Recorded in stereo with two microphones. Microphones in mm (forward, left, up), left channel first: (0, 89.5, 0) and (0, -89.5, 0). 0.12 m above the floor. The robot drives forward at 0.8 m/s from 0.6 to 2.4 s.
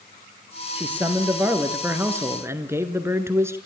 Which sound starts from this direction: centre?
A man speaking, at 0.8 s.